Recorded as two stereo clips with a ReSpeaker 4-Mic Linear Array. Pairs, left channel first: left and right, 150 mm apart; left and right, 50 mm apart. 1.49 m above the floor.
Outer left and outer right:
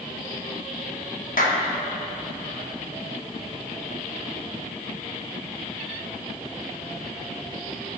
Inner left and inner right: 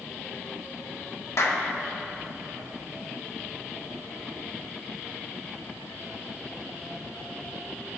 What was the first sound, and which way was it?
A clap, 65° left (ahead or behind).